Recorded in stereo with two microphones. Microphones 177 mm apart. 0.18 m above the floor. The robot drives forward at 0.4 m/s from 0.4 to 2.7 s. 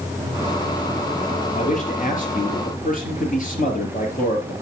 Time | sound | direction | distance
1.5 | a man speaking | 45° left (ahead or behind) | 4 m